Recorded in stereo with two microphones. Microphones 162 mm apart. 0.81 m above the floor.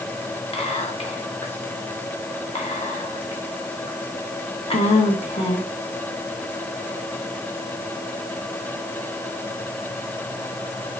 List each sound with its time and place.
0.5 s whispering: 40° left (ahead or behind), 0.6 m